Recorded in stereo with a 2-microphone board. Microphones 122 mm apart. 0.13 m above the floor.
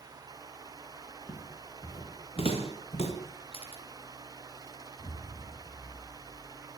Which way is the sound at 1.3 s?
50° left (ahead or behind).